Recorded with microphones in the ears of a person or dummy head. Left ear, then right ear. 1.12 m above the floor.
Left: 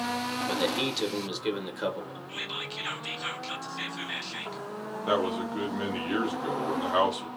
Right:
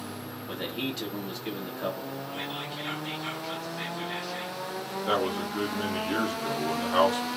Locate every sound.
0.5 s a man speaking: 40° left (ahead or behind), 0.9 m
2.3 s whispering: 25° left (ahead or behind), 0.8 m
5.1 s a man speaking: 5° left (ahead or behind), 0.9 m